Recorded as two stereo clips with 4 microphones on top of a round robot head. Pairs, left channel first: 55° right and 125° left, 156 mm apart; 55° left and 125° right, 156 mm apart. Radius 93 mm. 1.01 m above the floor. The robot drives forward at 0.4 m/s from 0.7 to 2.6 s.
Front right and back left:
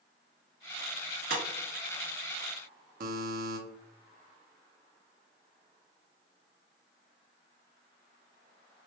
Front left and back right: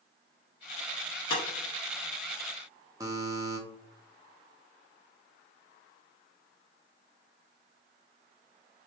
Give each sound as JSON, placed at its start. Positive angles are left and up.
{"t": 1.3, "sound": "breaking glass", "azimuth_deg": 105, "distance_m": 1.3}
{"t": 3.0, "sound": "a buzzer", "azimuth_deg": 160, "distance_m": 0.8}